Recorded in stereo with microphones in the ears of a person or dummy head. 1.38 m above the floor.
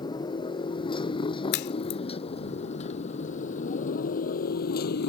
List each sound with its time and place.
0.0 s a motorcycle: 25° left (ahead or behind); by 5.1 s 55° left (ahead or behind)
1.5 s a crack: 60° left (ahead or behind)